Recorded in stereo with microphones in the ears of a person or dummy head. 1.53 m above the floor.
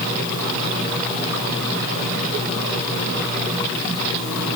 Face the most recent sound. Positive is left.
No sound to turn to.